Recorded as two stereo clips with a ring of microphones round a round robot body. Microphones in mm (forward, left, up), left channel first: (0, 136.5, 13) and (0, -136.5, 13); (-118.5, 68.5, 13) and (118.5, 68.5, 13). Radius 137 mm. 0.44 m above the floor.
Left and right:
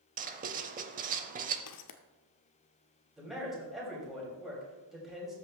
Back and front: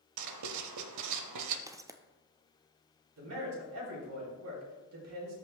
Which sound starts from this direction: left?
Footsteps, at 1.7 s.